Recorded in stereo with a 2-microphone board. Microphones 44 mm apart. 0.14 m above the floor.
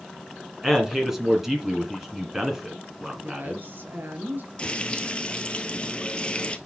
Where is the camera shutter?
No camera shutter in this recording.